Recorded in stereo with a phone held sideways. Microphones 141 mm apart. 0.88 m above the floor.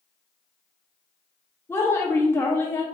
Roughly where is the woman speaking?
Centre.